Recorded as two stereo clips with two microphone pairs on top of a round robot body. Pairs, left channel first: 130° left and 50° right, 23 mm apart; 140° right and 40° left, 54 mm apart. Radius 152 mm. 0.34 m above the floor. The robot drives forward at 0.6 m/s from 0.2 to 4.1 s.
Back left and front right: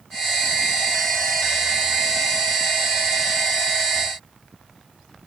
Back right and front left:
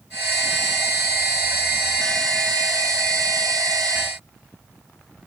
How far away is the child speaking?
I don't hear a child speaking.